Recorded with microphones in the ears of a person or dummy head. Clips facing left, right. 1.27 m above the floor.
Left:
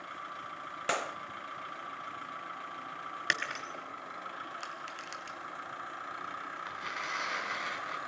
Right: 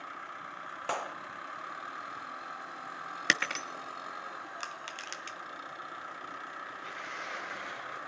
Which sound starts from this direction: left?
Tearing paper, at 6.7 s.